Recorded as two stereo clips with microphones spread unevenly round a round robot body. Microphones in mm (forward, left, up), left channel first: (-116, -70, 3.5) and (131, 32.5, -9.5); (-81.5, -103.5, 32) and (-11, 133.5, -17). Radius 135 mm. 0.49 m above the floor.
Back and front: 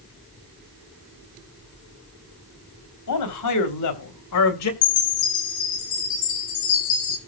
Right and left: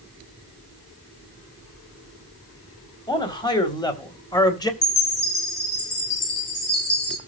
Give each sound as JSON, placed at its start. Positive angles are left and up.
{"t": 3.1, "sound": "a man speaking", "azimuth_deg": 175, "distance_m": 3.0}
{"t": 4.8, "sound": "a chime", "azimuth_deg": -155, "distance_m": 4.5}